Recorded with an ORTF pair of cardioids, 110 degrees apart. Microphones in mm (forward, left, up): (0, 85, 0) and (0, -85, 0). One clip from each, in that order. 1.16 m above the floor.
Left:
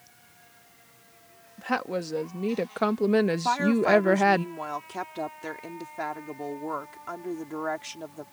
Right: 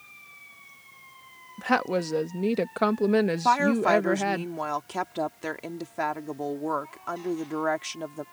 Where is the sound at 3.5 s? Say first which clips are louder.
Right 4 dB; 25° right.